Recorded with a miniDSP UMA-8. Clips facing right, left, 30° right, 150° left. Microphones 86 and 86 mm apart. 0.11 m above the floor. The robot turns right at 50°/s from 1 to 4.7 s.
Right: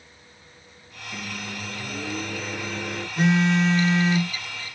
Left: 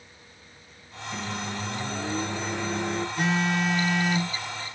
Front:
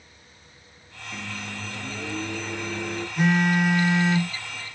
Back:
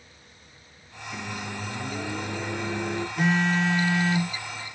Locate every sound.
1.1 s a microwave: 90° left, 1.2 m; by 3.1 s 170° right, 1.2 m
3.2 s a phone buzzing: 125° right, 0.9 m; by 4.8 s 50° right, 0.9 m